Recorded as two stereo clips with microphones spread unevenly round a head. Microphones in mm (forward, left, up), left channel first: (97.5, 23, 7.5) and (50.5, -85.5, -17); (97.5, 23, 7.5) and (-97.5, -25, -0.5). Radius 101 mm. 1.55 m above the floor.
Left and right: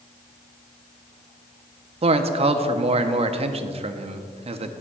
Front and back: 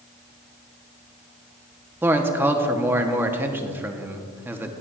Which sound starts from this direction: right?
A man speaking, at 2.0 s.